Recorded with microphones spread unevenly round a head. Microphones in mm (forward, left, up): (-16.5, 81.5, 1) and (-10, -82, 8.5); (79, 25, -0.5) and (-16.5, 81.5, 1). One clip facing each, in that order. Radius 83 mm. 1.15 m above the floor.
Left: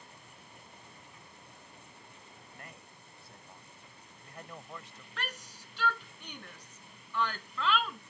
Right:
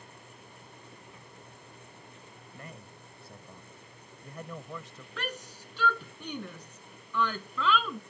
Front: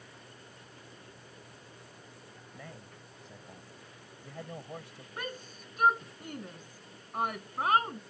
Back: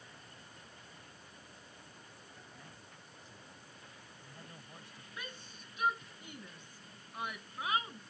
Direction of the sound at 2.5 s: 80° right.